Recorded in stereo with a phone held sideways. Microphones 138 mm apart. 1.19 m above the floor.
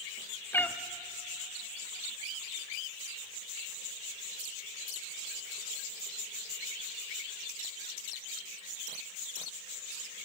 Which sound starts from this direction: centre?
A cat meowing, at 0.5 s.